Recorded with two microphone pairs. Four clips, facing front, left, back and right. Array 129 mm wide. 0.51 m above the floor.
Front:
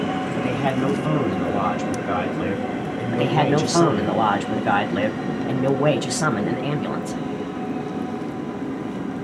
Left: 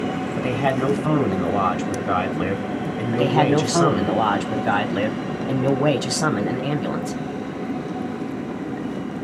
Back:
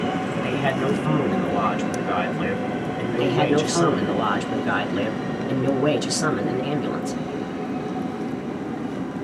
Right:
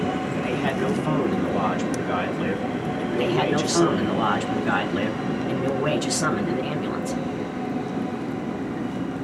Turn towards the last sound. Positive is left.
turn(degrees=45)